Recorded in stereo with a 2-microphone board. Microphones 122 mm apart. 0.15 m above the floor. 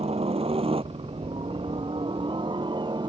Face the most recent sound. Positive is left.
turn(degrees=-40)  # may be behind; listen again after turning